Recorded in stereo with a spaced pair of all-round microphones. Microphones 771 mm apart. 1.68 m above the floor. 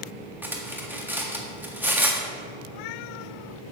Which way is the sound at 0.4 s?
5° right (ahead or behind).